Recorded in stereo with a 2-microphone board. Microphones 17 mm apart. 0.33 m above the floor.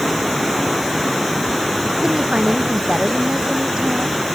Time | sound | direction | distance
2.0 | a woman speaking | 85° right | ?